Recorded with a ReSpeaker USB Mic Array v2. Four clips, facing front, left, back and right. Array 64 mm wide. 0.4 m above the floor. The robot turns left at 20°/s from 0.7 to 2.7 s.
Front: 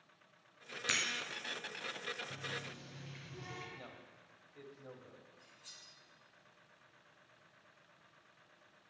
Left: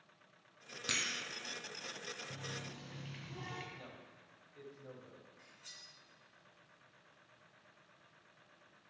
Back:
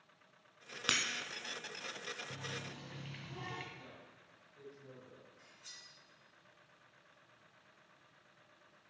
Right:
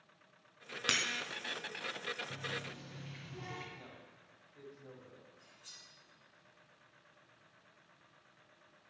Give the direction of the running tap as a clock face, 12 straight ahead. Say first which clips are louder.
Right 4 dB, front 1 dB; 6 o'clock.